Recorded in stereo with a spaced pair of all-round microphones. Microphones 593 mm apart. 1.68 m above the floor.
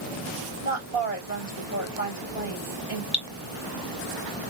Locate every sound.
0.6 s a woman speaking: 55° left (ahead or behind), 2.5 m
3.1 s dripping: 40° left (ahead or behind), 0.8 m